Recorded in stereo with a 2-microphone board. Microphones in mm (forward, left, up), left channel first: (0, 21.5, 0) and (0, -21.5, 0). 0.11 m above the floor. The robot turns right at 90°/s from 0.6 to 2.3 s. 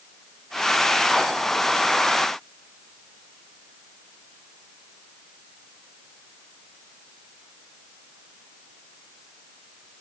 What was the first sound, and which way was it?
Only background noise.